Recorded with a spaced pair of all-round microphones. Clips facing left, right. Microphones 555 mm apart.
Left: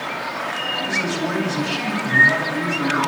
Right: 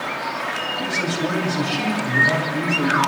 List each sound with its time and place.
0.8 s a man speaking: 60° right (ahead or behind), 8.5 m